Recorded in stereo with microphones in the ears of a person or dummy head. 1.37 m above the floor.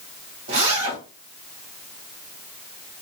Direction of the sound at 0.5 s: 50° right (ahead or behind).